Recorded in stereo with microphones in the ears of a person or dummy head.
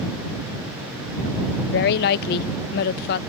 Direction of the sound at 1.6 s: 55° left (ahead or behind).